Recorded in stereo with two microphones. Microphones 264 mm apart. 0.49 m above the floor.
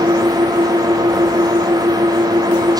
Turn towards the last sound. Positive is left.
turn(degrees=-15)  # may be behind; listen again after turning